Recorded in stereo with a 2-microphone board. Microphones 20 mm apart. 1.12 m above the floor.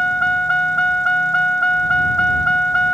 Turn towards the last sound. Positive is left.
turn(degrees=70)  # may be behind; listen again after turning